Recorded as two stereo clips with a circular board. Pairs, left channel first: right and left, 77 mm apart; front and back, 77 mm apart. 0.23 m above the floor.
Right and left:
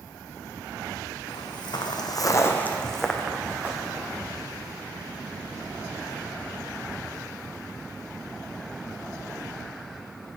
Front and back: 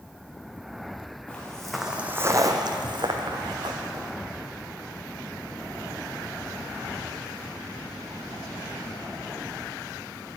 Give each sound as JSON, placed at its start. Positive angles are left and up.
{"t": 1.3, "sound": "footsteps", "azimuth_deg": -75, "distance_m": 1.1}